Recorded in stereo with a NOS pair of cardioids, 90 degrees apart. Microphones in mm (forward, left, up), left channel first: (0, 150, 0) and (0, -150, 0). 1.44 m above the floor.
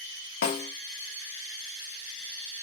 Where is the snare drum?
65° left, 1.6 m.